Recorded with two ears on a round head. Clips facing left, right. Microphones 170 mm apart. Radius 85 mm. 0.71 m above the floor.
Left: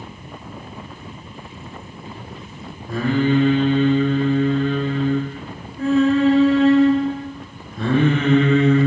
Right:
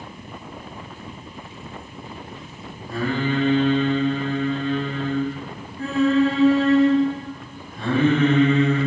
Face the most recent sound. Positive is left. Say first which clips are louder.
# left 5 dB
turn(degrees=65)  # may be behind; listen again after turning